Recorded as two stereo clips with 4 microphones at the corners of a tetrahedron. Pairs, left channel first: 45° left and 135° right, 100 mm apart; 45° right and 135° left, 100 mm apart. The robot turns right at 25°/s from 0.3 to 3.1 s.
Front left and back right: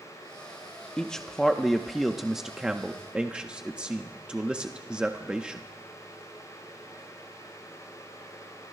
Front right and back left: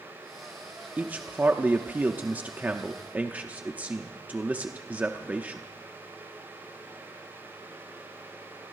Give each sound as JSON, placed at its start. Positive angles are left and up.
{"t": 1.0, "sound": "a man speaking", "azimuth_deg": 110, "distance_m": 0.8}